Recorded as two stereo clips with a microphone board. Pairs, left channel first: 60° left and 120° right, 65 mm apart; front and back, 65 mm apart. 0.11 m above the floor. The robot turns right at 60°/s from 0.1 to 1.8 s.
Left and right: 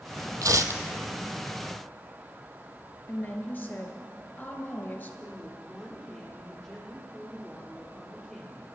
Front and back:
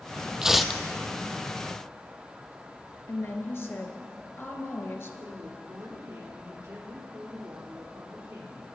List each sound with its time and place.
0.4 s tearing paper: 100° right, 0.6 m; by 0.8 s 75° right, 0.6 m
3.1 s a woman speaking: 20° left, 1.6 m
5.2 s a woman speaking: 145° left, 4 m